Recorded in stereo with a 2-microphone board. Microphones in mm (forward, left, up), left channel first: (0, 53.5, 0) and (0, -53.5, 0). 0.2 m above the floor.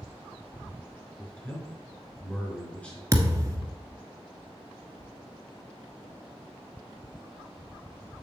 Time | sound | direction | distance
1.2 | a man speaking | 10° left (ahead or behind) | 3.5 m
3.1 | a thud | 30° right (ahead or behind) | 1.3 m